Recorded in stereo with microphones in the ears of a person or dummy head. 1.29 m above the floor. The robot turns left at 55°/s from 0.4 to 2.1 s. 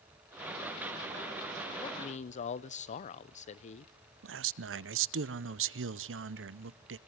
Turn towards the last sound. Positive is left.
turn(degrees=-65)  # may be behind; listen again after turning